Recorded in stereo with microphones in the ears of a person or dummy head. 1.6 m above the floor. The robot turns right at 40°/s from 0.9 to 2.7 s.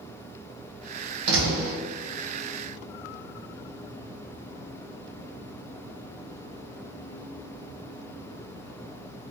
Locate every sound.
1.3 s a door slam: 65° right (ahead or behind), 0.8 m; by 1.7 s 50° right (ahead or behind), 0.8 m